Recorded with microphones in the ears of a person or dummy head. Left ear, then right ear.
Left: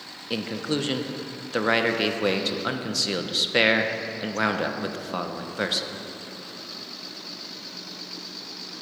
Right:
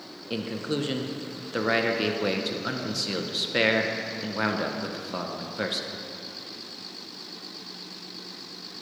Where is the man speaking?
10° left (ahead or behind), 0.7 m.